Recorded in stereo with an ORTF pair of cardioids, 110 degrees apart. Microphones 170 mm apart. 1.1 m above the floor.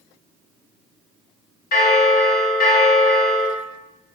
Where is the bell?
70° left, 1.7 m.